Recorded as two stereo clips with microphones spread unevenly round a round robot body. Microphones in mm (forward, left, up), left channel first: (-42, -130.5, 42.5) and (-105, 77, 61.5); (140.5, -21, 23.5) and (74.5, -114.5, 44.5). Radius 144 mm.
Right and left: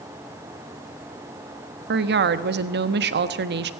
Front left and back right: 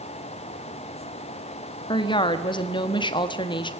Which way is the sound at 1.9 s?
75° left.